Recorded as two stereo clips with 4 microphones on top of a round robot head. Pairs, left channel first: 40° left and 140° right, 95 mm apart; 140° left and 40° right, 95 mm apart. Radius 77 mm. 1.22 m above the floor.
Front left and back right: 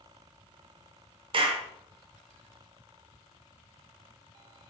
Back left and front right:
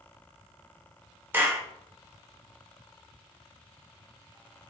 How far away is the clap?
About 0.6 m.